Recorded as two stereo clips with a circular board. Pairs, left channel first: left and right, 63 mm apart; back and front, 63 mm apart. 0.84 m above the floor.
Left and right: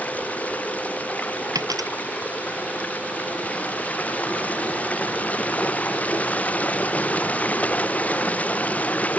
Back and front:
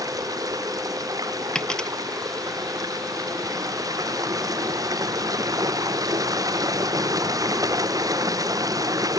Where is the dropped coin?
100° right.